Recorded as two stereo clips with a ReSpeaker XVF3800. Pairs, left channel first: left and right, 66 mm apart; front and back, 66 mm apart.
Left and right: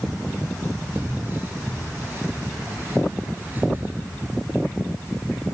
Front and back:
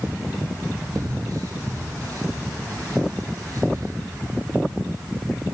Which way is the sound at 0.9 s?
145° right.